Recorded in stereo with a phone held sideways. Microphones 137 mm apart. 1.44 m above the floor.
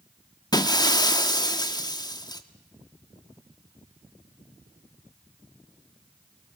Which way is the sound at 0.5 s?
30° left (ahead or behind).